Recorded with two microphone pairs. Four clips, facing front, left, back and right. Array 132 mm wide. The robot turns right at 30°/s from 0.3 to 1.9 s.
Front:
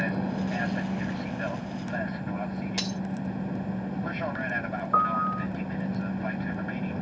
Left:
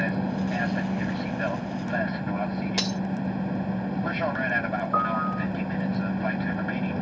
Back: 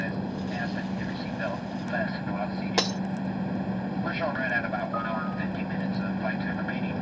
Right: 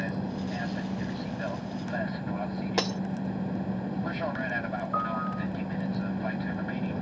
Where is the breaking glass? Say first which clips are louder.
Even, back 5 dB; 145° right.